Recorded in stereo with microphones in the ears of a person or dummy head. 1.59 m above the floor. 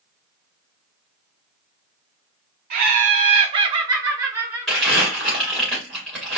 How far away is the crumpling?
About 2.5 m.